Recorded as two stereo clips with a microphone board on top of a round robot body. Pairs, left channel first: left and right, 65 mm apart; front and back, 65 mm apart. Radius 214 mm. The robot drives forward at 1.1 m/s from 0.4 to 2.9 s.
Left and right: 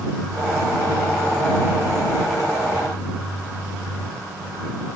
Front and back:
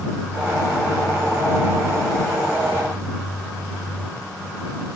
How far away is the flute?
No flute in this recording.